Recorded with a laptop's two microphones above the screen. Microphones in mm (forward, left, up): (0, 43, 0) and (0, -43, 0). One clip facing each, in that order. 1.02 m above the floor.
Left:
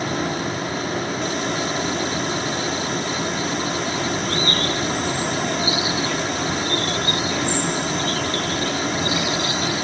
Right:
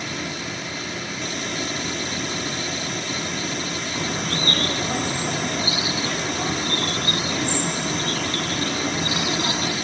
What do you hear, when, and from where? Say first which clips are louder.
0.0 s a fan: left 7 dB; 45° left (ahead or behind), 0.9 m
4.0 s a bird: left 3 dB; 60° right (ahead or behind), 6 m